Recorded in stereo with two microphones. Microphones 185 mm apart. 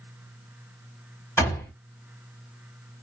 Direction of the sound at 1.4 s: 15° left (ahead or behind).